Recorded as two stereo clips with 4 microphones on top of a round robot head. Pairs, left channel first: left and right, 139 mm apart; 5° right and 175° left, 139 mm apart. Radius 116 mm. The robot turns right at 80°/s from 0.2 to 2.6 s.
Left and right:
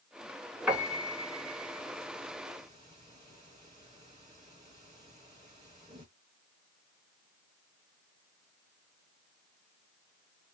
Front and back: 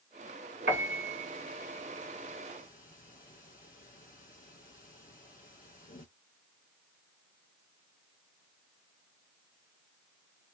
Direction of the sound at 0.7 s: 175° right.